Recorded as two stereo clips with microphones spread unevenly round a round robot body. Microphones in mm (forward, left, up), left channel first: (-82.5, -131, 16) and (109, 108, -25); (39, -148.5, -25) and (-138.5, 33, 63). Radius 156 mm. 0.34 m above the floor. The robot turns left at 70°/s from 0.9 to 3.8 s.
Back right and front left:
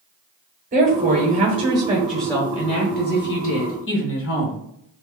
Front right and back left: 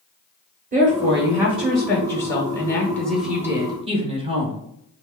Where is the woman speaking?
60° left, 1.1 m; by 4.6 s 140° right, 1.1 m.